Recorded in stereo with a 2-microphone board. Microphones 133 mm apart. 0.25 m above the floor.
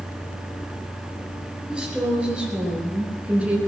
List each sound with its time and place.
1.7 s a woman speaking: 5° right (ahead or behind), 6 m; by 3.6 s 10° right (ahead or behind), 3.5 m